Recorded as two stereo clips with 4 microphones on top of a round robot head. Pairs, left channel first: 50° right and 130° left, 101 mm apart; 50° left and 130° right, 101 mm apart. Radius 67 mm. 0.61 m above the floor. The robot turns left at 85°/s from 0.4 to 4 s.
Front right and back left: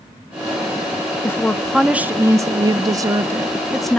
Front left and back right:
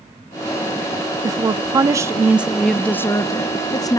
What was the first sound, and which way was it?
A woman speaking, 100° right.